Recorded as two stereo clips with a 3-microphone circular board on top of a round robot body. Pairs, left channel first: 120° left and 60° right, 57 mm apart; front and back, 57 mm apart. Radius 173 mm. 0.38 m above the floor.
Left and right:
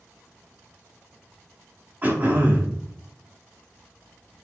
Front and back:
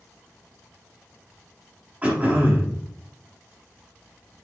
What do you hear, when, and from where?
2.0 s throat clearing: 115° right, 4.5 m